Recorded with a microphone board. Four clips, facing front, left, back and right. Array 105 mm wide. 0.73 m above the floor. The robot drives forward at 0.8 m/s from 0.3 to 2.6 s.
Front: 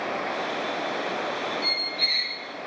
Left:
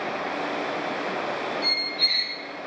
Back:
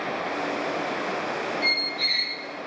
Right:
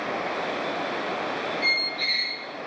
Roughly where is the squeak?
Behind right.